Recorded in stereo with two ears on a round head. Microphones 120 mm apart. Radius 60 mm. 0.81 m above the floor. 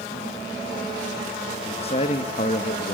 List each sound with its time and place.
1.6 s a man speaking: 45° left (ahead or behind), 1.2 m